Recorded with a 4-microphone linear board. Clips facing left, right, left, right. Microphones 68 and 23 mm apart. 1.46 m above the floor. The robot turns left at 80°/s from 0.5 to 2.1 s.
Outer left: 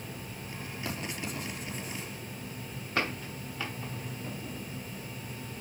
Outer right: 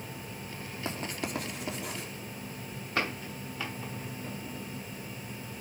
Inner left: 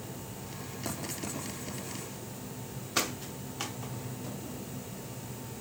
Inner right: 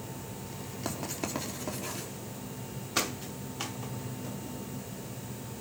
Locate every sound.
0.8 s writing: 25° right (ahead or behind), 4 m; by 2.1 s 60° right (ahead or behind), 4 m